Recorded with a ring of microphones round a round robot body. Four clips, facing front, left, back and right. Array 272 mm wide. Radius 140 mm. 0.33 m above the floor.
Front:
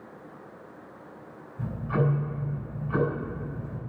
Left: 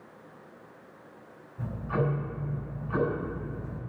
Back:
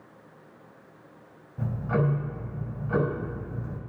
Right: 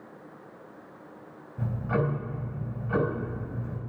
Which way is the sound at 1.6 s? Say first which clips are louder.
Right 2 dB, back 1 dB; 150° right.